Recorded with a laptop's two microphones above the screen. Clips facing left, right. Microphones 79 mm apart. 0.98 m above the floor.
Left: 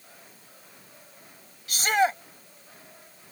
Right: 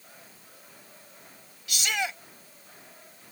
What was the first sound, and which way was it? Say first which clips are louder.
A shout: left 8 dB; 40° left (ahead or behind).